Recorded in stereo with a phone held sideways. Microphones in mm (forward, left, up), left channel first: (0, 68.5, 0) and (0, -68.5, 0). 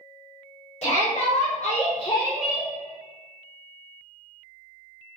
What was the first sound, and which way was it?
A shout, 50° left (ahead or behind).